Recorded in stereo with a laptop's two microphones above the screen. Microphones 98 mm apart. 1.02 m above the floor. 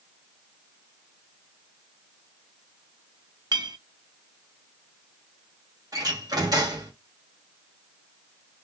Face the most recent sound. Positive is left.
turn(degrees=-40)  # may be behind; listen again after turning